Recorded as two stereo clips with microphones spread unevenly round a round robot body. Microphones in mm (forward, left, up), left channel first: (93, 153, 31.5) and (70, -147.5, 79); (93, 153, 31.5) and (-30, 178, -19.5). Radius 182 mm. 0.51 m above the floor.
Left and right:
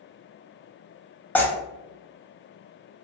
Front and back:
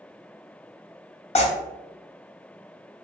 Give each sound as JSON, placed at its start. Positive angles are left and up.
{"t": 1.4, "sound": "tearing paper", "azimuth_deg": 0, "distance_m": 0.6}